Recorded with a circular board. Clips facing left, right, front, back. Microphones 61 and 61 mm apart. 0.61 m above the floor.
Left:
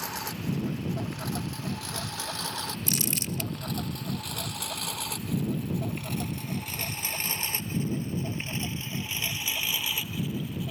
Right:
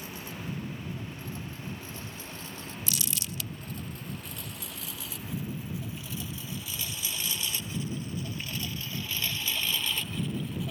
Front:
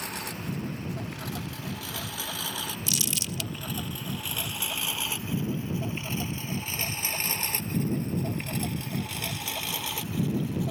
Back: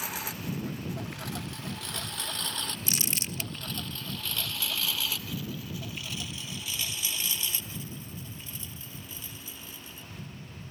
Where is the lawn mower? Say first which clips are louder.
Left 6 dB, front 1 dB; 95° left; by 10.7 s straight ahead.